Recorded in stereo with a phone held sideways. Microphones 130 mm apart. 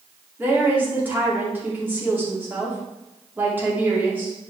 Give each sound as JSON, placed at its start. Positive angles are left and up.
{"t": 0.4, "sound": "a woman speaking", "side_deg": -15, "distance_m": 2.5}